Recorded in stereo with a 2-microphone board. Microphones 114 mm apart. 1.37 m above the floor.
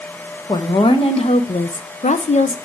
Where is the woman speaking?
40° left (ahead or behind), 1.2 m; by 2.6 s 65° left (ahead or behind), 0.8 m.